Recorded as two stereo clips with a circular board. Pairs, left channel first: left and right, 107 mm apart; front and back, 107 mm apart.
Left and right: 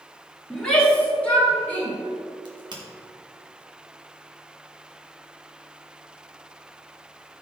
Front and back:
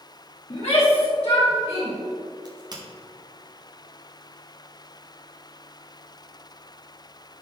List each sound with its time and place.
0.5 s a shout: 5° left, 3 m; by 1.9 s 15° left, 5 m
2.5 s a crack: 135° right, 1.8 m